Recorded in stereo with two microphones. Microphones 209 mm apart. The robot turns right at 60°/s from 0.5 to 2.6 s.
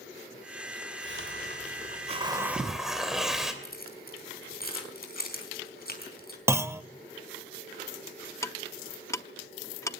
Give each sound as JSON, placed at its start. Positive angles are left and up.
{"t": 1.0, "sound": "a hiss", "azimuth_deg": -95, "distance_m": 3.0}
{"t": 3.6, "sound": "keys jangling", "side_deg": 45, "distance_m": 4.0}
{"t": 6.5, "sound": "a clunk", "side_deg": -15, "distance_m": 0.6}
{"t": 8.4, "sound": "ticking", "side_deg": 15, "distance_m": 0.7}